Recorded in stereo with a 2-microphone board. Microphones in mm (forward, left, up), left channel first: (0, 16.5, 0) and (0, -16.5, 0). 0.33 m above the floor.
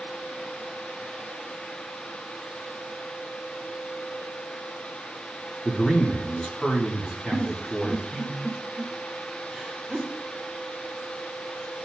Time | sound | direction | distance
5.7 | a man speaking | 30° left (ahead or behind) | 3.5 m
7.3 | a giggle | 5° right (ahead or behind) | 1.4 m